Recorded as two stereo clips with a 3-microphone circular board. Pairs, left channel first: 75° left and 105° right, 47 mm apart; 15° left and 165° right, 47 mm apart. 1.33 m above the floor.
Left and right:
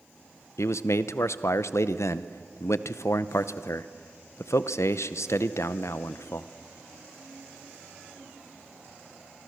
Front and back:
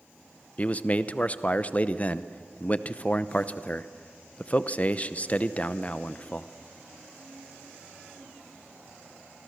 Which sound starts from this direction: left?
A man speaking, at 0.6 s.